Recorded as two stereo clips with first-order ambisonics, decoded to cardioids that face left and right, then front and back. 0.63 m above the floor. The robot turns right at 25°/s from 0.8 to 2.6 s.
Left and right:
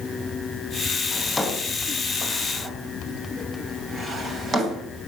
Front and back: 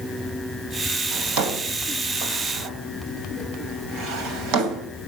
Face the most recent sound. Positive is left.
turn(degrees=-160)